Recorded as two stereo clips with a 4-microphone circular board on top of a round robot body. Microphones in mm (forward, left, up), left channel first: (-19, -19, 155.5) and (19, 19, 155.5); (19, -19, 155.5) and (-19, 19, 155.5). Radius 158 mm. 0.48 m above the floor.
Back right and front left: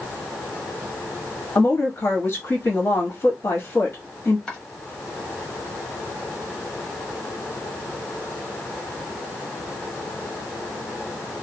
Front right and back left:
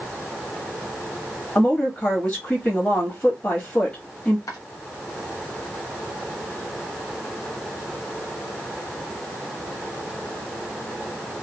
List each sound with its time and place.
1.6 s a woman speaking: 100° right, 1.5 m
4.5 s chopping: 60° right, 0.9 m